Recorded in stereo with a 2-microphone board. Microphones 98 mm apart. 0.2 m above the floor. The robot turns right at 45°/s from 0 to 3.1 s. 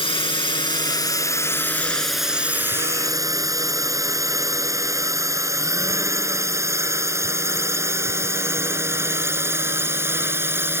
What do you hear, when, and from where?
0.0 s a drone: 60° left (ahead or behind); by 10.8 s 25° right (ahead or behind)